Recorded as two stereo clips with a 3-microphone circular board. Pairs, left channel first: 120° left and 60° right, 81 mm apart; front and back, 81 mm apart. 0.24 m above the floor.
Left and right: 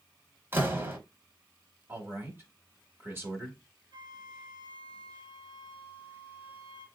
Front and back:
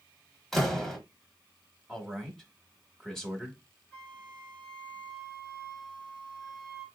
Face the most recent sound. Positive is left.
turn(degrees=-60)